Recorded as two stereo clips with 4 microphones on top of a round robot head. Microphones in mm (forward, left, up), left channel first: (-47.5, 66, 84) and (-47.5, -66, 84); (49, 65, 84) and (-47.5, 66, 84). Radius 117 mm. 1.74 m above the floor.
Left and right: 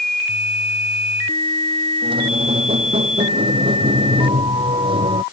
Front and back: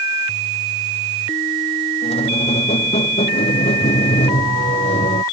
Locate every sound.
2.0 s a squeak: 35° right